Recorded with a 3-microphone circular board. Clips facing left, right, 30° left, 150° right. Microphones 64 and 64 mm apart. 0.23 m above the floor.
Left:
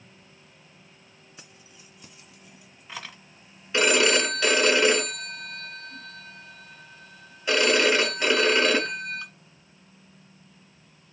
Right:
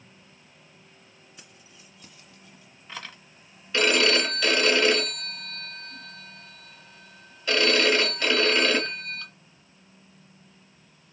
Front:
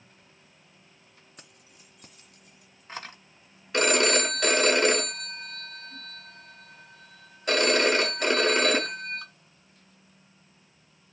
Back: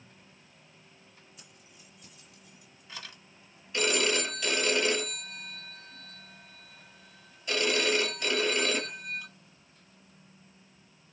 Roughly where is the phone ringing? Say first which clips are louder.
Left 1 dB, front 5 dB; ahead.